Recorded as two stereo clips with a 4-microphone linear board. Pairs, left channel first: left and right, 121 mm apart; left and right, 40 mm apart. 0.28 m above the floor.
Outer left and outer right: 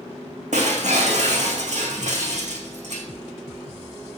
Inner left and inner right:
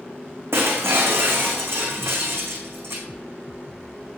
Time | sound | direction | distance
0.5 | breaking glass | 75° right (ahead or behind) | 1.8 m